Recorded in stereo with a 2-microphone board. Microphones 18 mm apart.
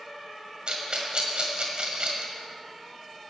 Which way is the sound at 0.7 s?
60° right (ahead or behind).